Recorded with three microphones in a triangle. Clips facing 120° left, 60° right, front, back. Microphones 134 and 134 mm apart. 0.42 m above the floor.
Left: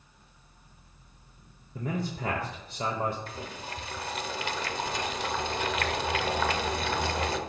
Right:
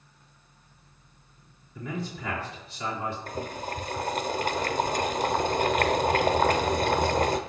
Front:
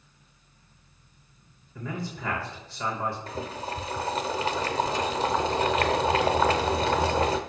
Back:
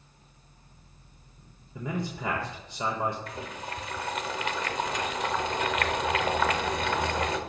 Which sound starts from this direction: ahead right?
Boiling, at 3.3 s.